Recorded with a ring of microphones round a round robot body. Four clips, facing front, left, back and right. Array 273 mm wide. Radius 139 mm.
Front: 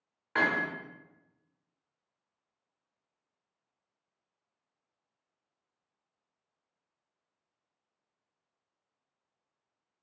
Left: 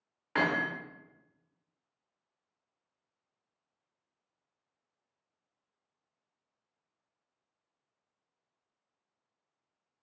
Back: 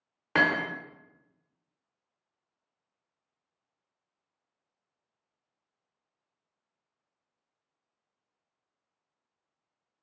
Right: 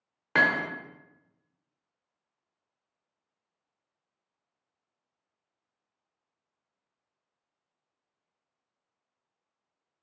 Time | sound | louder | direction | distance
0.3 | hammering | right 4 dB, back 3 dB | 140° right | 0.5 m